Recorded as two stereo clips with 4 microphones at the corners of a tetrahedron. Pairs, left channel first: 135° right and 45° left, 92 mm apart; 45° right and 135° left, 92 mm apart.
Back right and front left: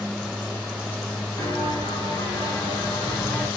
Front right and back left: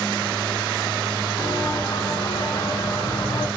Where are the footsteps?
85° right, 5.5 m; by 3.5 s 65° right, 3.5 m.